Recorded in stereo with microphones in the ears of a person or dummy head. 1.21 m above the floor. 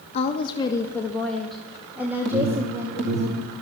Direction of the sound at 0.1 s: 35° left (ahead or behind).